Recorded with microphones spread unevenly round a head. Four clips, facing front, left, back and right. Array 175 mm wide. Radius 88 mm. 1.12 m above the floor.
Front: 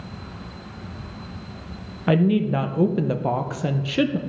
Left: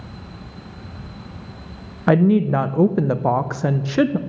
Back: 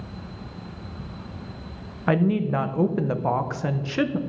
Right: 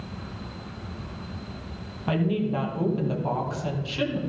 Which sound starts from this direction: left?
A woman speaking, at 2.1 s.